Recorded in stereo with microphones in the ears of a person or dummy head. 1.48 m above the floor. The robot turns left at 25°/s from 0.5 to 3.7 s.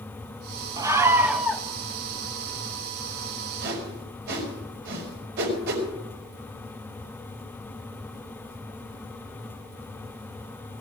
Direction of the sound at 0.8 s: 15° right (ahead or behind).